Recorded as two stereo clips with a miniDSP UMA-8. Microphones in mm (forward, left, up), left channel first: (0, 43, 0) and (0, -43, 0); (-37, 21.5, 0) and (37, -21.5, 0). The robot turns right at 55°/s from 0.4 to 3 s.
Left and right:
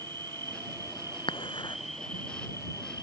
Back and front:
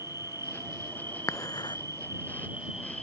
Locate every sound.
0.0 s an insect: 80° right; by 3.0 s 65° left
1.3 s dishes clattering: 95° left; by 1.8 s 120° left